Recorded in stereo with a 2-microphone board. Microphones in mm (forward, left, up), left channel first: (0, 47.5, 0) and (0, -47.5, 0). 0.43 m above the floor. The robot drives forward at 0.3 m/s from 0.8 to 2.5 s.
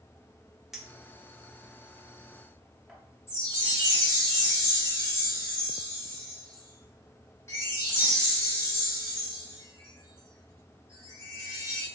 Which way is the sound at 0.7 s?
5° right (ahead or behind).